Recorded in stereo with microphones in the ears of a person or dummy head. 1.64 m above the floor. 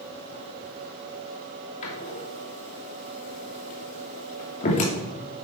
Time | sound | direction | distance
1.8 | a door slam | 40° left (ahead or behind) | 2.5 m